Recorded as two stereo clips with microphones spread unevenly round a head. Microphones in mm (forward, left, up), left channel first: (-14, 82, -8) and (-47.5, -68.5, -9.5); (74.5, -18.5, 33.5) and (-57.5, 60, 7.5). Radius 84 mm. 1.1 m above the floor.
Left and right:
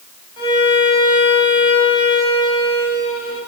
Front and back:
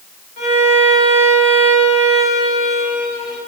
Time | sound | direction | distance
0.4 | a violin | 15° left | 5.5 m